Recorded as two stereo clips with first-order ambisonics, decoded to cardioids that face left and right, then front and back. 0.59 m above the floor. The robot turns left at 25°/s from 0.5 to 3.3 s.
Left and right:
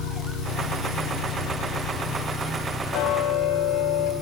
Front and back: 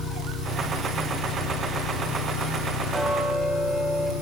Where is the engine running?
75° left, 8.5 m; by 4.2 s 5° left, 8.5 m.